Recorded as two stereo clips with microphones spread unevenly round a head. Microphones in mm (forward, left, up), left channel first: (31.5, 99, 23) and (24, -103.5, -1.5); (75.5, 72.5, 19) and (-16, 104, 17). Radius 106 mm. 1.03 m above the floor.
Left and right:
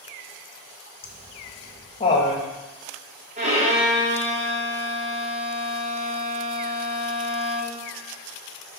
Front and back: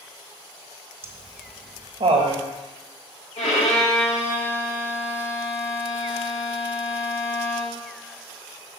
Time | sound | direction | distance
1.0 | laughter | 155° left | 1.1 m
3.4 | a violin | 35° right | 1.7 m